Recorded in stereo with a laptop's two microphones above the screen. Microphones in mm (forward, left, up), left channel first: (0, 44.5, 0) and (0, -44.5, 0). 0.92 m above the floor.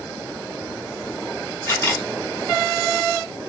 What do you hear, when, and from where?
1.7 s a camera shutter: 25° left (ahead or behind), 1.7 m